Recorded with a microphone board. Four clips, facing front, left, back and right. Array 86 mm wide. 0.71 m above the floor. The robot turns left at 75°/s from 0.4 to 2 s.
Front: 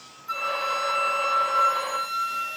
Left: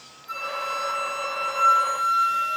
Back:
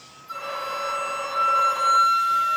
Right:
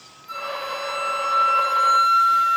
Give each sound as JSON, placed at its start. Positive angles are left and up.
{"t": 0.3, "sound": "a flute", "azimuth_deg": 0, "distance_m": 6.5}